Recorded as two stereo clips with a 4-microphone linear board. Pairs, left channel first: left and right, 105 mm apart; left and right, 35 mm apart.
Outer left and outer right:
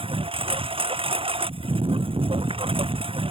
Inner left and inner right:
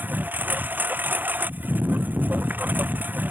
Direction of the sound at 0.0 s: 60° right (ahead or behind).